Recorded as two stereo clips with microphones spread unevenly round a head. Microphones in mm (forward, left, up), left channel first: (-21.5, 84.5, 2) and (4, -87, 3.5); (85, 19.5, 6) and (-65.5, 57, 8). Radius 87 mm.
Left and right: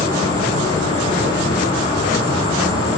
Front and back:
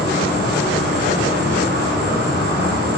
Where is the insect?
160° left, 3 m.